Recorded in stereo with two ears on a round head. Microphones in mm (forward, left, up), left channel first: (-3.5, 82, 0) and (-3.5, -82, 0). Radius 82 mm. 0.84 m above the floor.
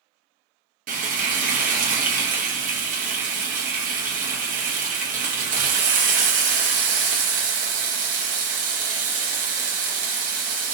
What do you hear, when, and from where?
0.9 s frying: 45° right (ahead or behind), 0.8 m